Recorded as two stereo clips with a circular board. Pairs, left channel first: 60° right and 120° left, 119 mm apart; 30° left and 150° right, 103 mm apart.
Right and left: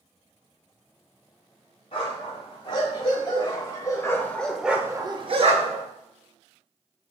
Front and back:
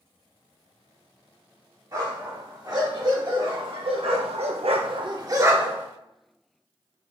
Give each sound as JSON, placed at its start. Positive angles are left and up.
{"t": 1.9, "sound": "a dog barking", "azimuth_deg": -100, "distance_m": 1.8}